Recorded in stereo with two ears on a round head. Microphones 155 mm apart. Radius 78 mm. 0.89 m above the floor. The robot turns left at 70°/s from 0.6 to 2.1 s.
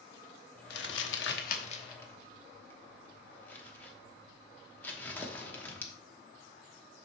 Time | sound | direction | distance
0.7 | crumpling | 70° left (ahead or behind) | 1.0 m